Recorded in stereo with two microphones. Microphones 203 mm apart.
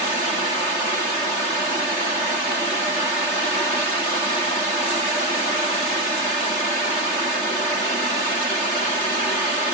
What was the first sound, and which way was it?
Only background noise.